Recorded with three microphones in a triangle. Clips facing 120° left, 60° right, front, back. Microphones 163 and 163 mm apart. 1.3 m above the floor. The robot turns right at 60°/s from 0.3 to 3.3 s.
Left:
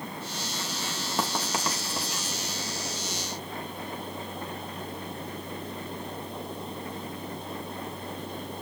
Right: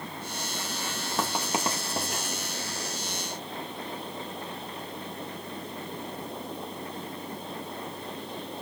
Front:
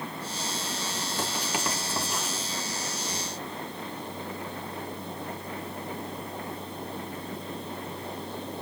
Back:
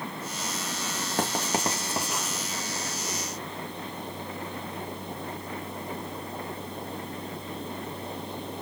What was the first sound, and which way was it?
Writing, 150° right.